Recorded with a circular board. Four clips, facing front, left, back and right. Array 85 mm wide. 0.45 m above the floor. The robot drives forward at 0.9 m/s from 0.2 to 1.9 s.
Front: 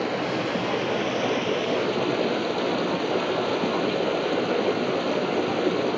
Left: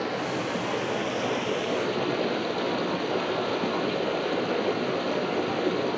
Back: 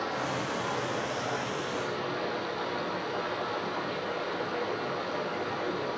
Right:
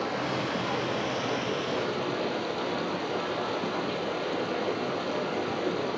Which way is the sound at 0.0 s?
15° left.